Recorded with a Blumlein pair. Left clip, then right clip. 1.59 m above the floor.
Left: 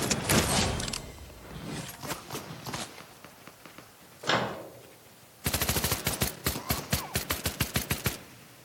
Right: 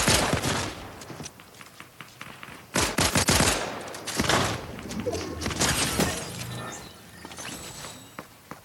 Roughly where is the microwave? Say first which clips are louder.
Right 3 dB; ahead.